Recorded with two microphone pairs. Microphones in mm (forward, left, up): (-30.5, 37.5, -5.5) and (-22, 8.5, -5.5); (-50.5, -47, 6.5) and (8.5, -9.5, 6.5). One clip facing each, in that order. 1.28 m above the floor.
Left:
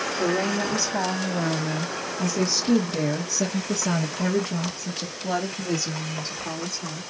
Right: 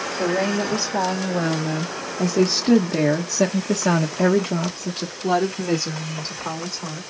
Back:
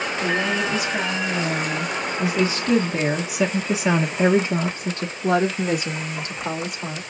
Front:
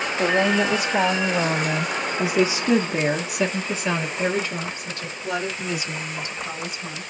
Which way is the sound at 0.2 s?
5° right.